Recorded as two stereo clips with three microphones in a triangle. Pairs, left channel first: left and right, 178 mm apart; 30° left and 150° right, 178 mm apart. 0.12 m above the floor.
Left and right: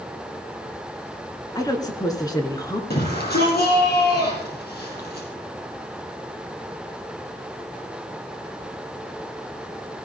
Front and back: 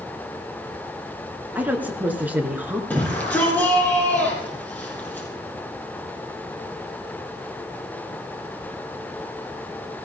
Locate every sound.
1.6 s a woman speaking: 135° left, 1.7 m
2.9 s a shout: 110° left, 3.5 m